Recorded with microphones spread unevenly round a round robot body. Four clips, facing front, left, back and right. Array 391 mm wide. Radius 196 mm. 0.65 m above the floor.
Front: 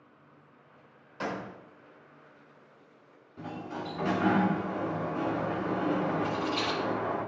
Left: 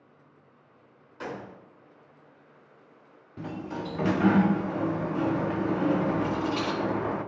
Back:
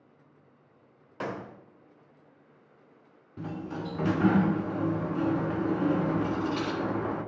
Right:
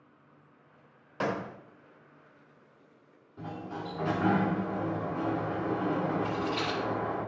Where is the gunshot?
90° right, 1.2 m.